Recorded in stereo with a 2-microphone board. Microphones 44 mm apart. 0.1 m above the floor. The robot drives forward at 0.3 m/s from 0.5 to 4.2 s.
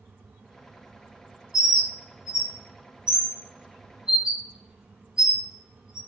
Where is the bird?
10° right (ahead or behind), 0.8 m; by 6.0 s 20° right (ahead or behind), 0.5 m.